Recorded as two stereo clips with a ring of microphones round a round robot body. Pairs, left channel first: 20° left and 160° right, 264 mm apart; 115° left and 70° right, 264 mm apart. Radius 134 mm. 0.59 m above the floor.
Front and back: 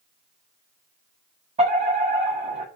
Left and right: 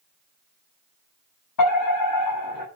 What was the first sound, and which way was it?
A fire alarm, 135° left.